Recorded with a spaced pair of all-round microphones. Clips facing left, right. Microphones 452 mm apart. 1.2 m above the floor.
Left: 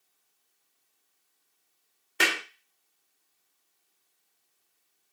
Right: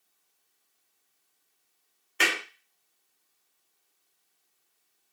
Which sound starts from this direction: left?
A clap, at 2.2 s.